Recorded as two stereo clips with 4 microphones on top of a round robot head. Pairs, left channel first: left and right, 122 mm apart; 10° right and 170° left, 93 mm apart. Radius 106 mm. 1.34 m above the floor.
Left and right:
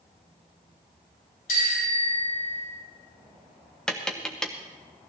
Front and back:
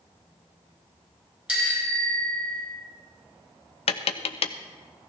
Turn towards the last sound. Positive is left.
turn(degrees=5)